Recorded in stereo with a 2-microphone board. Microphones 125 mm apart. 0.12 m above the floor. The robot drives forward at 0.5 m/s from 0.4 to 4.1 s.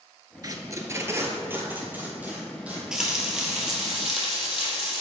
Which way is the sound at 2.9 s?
5° right (ahead or behind).